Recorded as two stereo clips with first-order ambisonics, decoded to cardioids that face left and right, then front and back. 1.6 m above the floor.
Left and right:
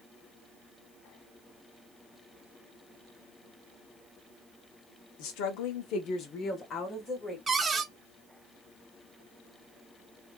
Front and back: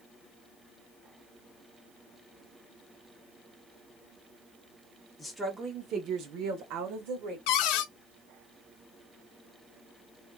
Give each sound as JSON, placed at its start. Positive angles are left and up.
{"t": 5.2, "sound": "a woman speaking", "azimuth_deg": 85, "distance_m": 0.9}
{"t": 7.5, "sound": "a cupboard door", "azimuth_deg": -15, "distance_m": 0.5}